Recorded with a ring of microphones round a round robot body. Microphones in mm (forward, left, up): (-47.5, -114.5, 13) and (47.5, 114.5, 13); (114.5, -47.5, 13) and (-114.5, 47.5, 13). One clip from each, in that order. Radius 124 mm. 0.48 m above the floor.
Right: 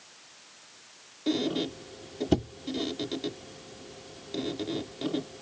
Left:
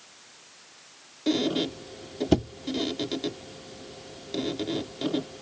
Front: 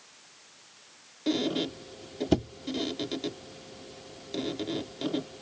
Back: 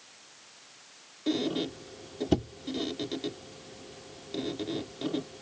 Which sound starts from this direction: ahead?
A squeak, at 1.3 s.